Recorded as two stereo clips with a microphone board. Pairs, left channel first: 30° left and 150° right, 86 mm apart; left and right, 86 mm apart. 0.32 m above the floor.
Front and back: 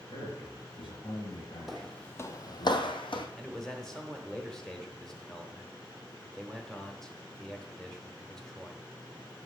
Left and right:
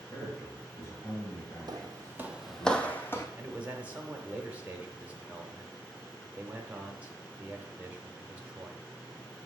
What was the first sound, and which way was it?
A man speaking, 25° left.